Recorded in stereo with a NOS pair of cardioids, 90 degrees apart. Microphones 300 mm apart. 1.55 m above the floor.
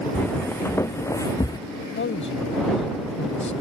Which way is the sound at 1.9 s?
40° left.